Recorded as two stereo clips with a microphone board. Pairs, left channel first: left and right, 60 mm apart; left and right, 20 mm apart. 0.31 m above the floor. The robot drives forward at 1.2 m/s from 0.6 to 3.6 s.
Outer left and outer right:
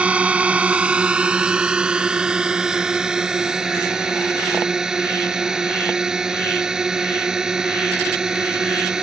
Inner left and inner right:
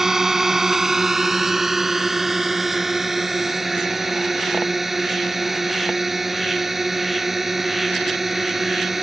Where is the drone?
20° right (ahead or behind); by 9.0 s 10° right (ahead or behind).